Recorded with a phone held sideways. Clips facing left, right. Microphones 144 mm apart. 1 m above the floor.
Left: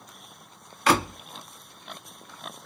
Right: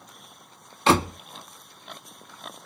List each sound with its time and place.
0.9 s a door slam: 25° right (ahead or behind), 0.7 m